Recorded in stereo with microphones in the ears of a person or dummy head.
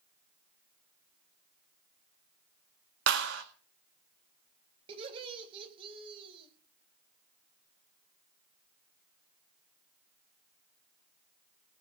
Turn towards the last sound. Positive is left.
turn(degrees=-35)  # may be behind; listen again after turning